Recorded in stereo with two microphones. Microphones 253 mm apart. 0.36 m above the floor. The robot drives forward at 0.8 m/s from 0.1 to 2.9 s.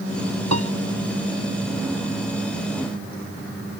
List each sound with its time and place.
0.5 s a piano: 85° right; by 0.7 s 90° right